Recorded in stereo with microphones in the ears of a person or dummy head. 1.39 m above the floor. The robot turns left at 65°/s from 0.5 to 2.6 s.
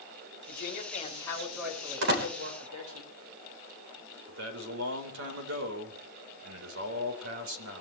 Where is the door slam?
75° right (ahead or behind), 4 m; by 2.3 s 55° right (ahead or behind), 4 m.